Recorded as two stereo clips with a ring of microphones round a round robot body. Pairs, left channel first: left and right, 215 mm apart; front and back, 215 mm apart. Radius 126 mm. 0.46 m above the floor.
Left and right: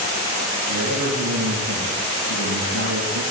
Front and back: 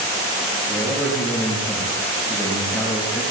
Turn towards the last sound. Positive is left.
turn(degrees=-80)